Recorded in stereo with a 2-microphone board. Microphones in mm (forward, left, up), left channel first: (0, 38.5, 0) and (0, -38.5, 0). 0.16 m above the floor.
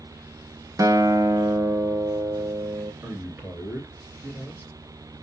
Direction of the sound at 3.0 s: 25° right (ahead or behind).